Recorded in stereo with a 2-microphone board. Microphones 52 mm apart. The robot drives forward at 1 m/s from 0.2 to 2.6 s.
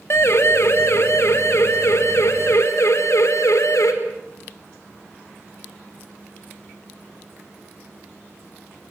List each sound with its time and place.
0.1 s a siren: 55° left (ahead or behind), 3 m; by 3.9 s 80° left, 4.5 m